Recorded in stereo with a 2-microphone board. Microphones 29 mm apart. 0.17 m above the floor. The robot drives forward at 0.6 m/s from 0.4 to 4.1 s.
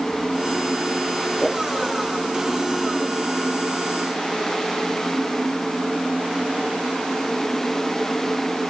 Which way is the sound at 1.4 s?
5° left (ahead or behind).